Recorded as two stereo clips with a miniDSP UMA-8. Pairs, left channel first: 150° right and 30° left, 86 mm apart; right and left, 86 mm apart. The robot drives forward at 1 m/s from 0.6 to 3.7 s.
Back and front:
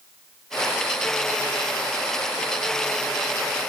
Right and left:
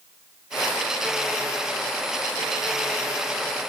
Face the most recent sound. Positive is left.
No sound to turn to.